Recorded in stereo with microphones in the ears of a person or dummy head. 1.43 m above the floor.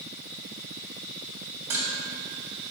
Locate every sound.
1.7 s dishes clattering: 10° right (ahead or behind), 2 m